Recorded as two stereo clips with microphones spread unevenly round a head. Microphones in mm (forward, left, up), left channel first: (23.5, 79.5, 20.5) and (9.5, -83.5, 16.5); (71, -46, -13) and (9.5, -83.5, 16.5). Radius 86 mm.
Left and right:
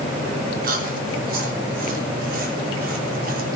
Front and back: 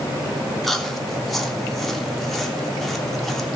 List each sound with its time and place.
0.6 s chewing: 60° right, 3 m